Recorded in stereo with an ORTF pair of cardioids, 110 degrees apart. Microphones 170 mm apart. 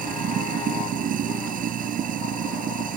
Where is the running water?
55° right.